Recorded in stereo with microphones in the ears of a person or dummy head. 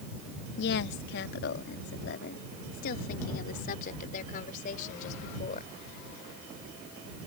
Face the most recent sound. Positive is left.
turn(degrees=45)  # may be behind; listen again after turning